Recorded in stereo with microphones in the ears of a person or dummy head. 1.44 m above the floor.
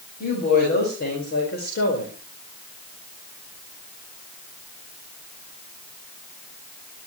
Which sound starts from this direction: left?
A woman speaking, at 0.2 s.